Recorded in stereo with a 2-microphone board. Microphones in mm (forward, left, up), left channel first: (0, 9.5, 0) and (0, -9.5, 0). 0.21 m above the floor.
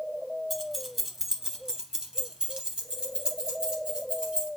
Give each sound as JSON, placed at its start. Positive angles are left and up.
{"t": 0.5, "sound": "keys jangling", "side_deg": 0, "distance_m": 1.0}